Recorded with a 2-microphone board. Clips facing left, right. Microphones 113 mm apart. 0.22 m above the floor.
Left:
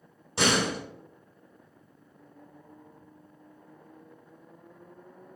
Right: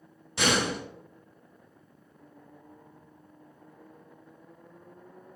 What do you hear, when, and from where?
0.4 s a door slam: 35° left (ahead or behind), 1.3 m